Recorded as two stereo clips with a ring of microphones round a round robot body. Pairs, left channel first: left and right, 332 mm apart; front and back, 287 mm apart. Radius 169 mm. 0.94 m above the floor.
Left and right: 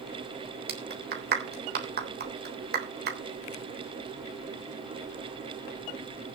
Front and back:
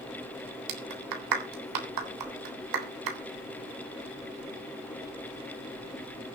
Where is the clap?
155° right, 3.5 m.